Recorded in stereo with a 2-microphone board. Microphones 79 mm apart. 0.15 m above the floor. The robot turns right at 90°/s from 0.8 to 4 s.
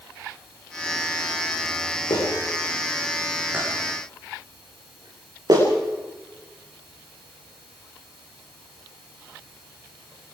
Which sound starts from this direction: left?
A clap, at 2.1 s.